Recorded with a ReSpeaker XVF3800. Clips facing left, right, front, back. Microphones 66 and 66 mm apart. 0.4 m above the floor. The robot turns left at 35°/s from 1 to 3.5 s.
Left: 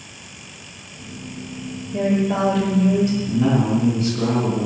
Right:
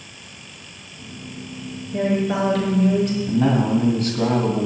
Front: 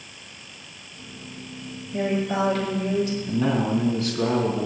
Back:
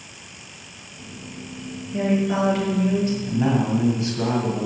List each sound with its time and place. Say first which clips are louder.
1.9 s a woman speaking: left 1 dB, back 3 dB; 85° right, 7 m; by 3.2 s 130° right, 7 m
3.3 s a man speaking: right 3 dB, back 2 dB; 105° right, 2.5 m; by 4.7 s 110° right, 2.5 m